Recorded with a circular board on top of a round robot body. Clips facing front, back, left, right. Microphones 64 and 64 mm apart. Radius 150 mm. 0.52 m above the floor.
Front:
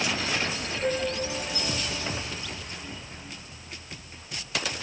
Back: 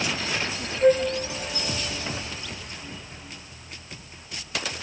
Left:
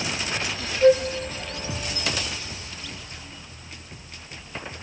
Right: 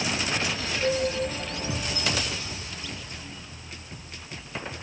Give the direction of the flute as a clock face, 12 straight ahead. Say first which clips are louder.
Back 10 dB, left 10 dB; 8 o'clock.